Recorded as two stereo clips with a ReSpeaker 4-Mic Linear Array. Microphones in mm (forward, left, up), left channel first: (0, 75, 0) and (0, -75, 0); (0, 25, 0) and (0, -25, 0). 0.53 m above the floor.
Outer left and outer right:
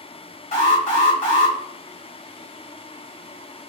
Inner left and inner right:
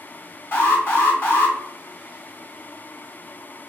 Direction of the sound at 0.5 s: 50° left (ahead or behind).